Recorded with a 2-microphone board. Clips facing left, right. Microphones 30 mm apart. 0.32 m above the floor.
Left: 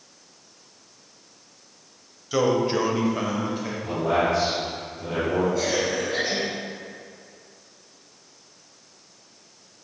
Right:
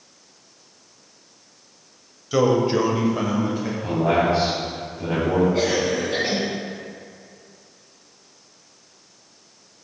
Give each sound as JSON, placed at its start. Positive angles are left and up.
{"t": 2.3, "sound": "a man speaking", "side_deg": -5, "distance_m": 1.2}
{"t": 3.8, "sound": "a man speaking", "side_deg": -50, "distance_m": 2.5}
{"t": 5.5, "sound": "a cough", "side_deg": -55, "distance_m": 2.5}